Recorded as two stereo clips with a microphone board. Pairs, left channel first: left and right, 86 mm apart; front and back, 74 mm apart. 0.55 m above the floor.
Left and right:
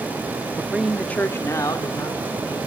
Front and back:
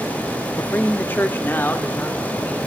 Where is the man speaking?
45° right, 0.8 m; by 2.6 s 65° left, 1.8 m.